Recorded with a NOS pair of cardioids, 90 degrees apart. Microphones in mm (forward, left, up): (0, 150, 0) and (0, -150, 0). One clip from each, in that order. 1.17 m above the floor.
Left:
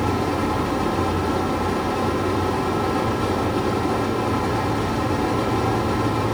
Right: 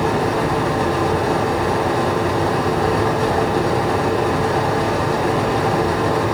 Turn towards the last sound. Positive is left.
turn(degrees=-70)